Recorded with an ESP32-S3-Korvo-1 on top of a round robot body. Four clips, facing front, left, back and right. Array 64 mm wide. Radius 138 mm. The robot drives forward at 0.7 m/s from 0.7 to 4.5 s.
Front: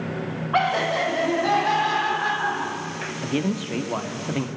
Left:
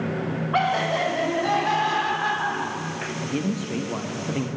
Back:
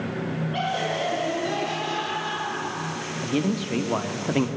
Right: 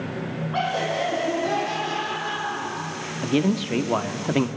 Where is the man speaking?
70° right, 1.8 m; by 4.5 s 110° right, 1.8 m.